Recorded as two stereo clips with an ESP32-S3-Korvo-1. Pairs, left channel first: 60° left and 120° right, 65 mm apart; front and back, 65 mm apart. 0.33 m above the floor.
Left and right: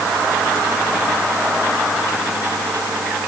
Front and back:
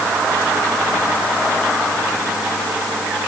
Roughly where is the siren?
I don't hear a siren.